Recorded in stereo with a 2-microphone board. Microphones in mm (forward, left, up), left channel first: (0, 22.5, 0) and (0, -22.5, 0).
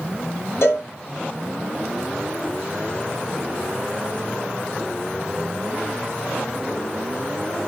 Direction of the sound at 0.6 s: 65° left (ahead or behind).